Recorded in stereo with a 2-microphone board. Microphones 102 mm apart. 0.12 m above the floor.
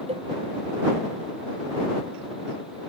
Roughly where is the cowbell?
Right.